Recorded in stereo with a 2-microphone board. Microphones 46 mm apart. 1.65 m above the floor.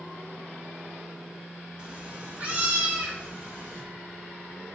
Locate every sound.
1.8 s a cat meowing: 20° right (ahead or behind), 1.0 m; by 3.8 s 40° right (ahead or behind), 2.5 m